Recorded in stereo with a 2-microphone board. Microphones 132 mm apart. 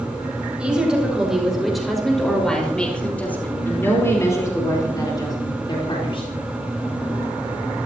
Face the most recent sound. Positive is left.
turn(degrees=45)  # may be behind; listen again after turning